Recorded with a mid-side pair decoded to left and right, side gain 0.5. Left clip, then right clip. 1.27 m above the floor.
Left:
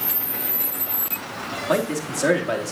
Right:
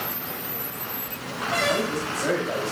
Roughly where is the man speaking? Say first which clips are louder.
Left 2 dB; ahead left.